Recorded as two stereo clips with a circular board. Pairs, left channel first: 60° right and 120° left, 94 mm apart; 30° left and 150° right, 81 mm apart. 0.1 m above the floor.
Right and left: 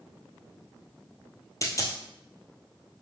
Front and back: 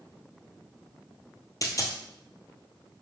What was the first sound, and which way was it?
A dropped coin, 10° right.